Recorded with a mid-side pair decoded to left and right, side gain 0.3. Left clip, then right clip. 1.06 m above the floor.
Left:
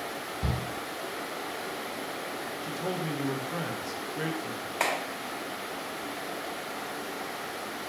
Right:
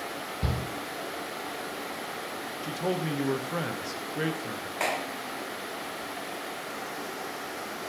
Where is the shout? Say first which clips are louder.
Right 1 dB; 45° right, 1.0 m.